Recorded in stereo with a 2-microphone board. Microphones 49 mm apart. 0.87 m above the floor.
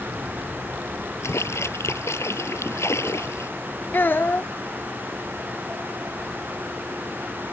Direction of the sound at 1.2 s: 70° left (ahead or behind).